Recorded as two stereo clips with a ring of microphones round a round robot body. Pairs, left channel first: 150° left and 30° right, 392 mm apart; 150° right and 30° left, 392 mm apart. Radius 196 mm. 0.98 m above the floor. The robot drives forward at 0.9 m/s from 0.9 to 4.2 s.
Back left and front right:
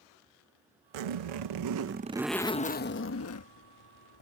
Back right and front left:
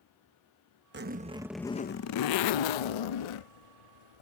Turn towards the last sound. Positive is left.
turn(degrees=-165)